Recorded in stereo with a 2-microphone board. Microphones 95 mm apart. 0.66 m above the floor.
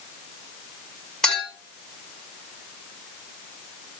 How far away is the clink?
About 1.7 m.